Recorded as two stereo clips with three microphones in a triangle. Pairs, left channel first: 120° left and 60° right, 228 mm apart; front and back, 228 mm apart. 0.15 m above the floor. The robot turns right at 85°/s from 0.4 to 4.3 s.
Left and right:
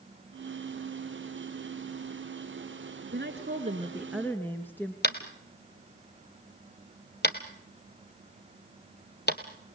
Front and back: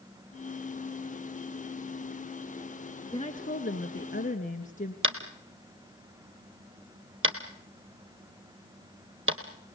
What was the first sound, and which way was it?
A woman speaking, 60° right.